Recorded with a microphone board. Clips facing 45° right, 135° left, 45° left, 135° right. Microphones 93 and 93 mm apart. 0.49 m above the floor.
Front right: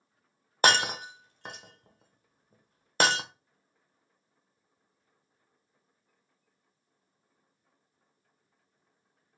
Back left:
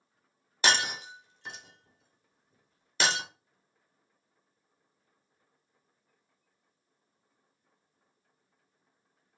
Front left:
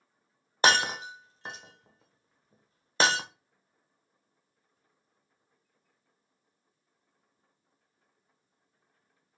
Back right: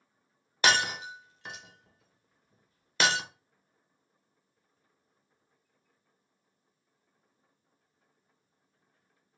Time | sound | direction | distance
0.6 | breaking glass | 10° right | 0.7 m